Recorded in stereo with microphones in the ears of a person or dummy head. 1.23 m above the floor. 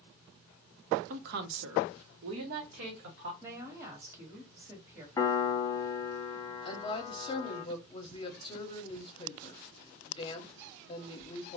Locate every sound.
1.1 s a woman speaking: 45° right (ahead or behind), 0.7 m; by 3.3 s 60° right (ahead or behind), 1.3 m
3.4 s a woman speaking: 10° right (ahead or behind), 1.2 m
5.2 s a piano: 15° left (ahead or behind), 0.6 m
6.7 s a woman speaking: 25° left (ahead or behind), 0.8 m